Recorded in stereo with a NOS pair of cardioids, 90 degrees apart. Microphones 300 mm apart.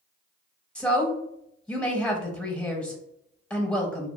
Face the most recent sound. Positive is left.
turn(degrees=5)